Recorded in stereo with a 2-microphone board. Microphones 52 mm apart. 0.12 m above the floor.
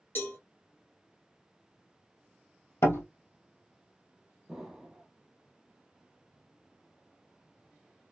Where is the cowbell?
45° left (ahead or behind), 2.5 m.